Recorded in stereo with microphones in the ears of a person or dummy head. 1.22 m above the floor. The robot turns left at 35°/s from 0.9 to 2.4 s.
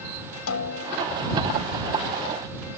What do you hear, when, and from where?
0.5 s a snare drum: 90° left; by 1.1 s 80° left